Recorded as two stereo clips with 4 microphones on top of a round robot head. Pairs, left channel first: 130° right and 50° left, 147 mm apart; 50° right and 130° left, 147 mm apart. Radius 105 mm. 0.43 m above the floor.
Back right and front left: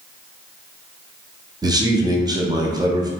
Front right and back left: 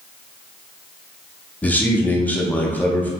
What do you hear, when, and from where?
1.6 s a man speaking: 20° left, 0.8 m